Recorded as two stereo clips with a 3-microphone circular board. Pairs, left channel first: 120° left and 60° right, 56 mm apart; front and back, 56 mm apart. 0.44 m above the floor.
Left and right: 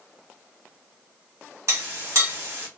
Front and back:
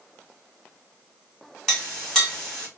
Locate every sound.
1.7 s a clink: 75° right, 1.7 m